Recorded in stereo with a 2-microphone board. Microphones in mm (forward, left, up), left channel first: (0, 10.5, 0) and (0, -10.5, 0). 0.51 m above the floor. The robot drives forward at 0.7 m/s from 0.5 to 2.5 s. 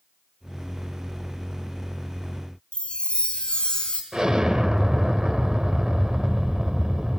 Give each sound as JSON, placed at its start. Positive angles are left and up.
{"t": 2.7, "sound": "a chime", "side_deg": 50, "distance_m": 3.0}
{"t": 4.1, "sound": "an explosion", "side_deg": -40, "distance_m": 1.7}